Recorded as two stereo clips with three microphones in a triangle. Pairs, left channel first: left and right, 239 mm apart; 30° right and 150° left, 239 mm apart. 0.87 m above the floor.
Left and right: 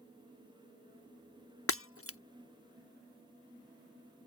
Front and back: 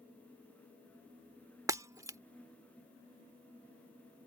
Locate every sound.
1.7 s breaking glass: 75° left